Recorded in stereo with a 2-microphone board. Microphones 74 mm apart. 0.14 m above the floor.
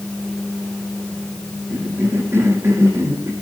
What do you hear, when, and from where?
1.7 s a cough: 35° right (ahead or behind), 6 m